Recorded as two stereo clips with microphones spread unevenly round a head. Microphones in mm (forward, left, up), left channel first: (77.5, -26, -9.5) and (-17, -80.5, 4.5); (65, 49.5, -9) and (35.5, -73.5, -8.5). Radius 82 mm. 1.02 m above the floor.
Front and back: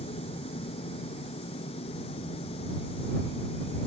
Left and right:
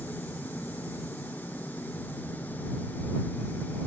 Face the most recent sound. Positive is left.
turn(degrees=0)